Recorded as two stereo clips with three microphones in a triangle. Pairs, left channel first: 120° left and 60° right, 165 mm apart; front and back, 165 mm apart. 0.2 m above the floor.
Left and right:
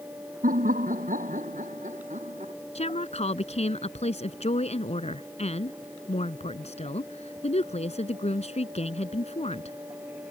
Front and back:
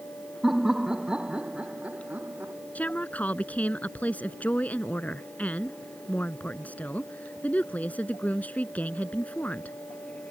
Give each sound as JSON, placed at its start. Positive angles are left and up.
{"t": 0.4, "sound": "laughter", "azimuth_deg": -90}
{"t": 2.8, "sound": "a woman speaking", "azimuth_deg": 80}